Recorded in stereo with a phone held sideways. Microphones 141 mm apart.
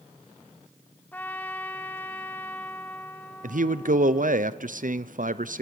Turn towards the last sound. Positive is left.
turn(degrees=-70)  # may be behind; listen again after turning